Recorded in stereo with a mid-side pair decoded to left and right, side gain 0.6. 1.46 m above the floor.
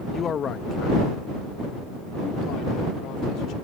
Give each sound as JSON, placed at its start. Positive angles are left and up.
{"t": 0.1, "sound": "a man speaking", "azimuth_deg": 35}